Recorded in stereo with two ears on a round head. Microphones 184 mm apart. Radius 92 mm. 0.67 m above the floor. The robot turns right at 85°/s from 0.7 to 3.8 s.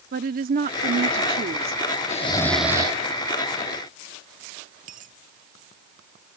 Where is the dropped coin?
40° right (ahead or behind).